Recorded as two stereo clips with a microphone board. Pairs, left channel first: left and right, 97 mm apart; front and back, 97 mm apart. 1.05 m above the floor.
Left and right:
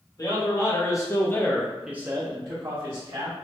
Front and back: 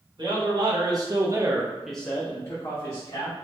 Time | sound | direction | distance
0.2 | a man speaking | 140° left | 1.7 m